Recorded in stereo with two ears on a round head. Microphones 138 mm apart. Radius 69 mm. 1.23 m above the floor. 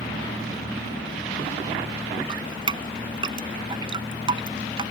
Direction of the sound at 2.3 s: 30° right (ahead or behind).